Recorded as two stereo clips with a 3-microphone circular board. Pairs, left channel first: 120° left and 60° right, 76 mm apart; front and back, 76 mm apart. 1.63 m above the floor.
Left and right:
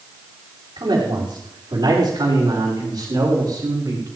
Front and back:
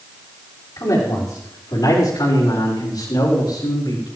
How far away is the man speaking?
About 5 m.